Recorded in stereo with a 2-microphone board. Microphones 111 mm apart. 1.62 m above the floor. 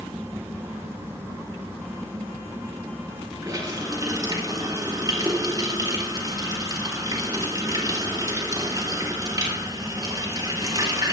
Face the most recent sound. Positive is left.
turn(degrees=-35)  # may be behind; listen again after turning